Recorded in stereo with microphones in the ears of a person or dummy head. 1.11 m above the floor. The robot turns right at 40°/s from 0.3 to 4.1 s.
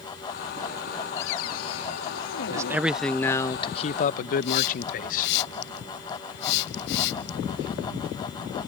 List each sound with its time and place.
1.2 s a cupboard door: 65° left; by 2.8 s 130° left
2.5 s a man speaking: 20° right; by 5.3 s 45° left
4.4 s a hiss: 65° left (ahead or behind)